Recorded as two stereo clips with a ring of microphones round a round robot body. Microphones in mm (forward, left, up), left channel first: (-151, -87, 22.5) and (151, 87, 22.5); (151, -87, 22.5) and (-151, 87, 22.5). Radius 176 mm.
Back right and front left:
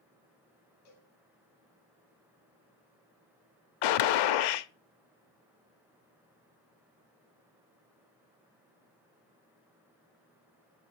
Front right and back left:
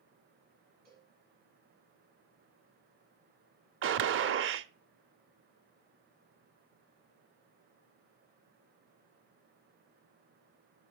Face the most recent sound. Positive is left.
turn(degrees=-155)